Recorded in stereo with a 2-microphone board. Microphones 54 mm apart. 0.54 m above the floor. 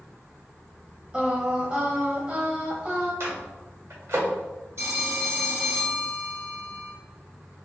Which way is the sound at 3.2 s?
60° right (ahead or behind).